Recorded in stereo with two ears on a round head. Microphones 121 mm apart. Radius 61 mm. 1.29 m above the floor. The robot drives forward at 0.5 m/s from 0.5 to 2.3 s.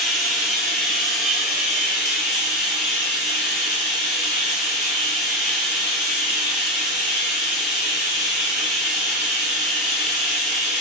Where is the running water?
Centre (ahead or behind), 0.9 m.